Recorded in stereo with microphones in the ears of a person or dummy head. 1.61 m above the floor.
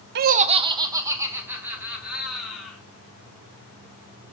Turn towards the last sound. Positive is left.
turn(degrees=0)  # may be behind; listen again after turning